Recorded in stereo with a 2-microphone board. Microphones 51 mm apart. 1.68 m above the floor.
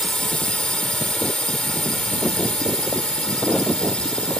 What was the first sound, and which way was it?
A drone, 20° left (ahead or behind).